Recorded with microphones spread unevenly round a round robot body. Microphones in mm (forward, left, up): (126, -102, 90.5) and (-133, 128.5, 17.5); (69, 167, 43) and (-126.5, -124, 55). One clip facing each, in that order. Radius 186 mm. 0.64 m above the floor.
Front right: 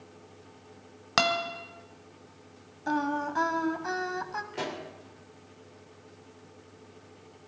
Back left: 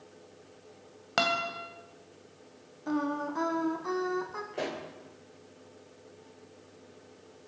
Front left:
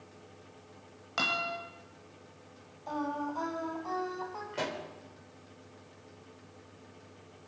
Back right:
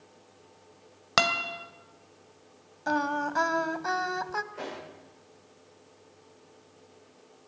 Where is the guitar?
110° right, 2.5 m.